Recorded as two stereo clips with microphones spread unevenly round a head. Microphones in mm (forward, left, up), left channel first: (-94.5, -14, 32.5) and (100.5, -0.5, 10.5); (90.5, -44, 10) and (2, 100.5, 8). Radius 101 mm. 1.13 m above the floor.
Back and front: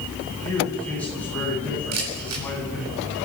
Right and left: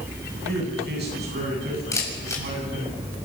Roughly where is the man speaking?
Left.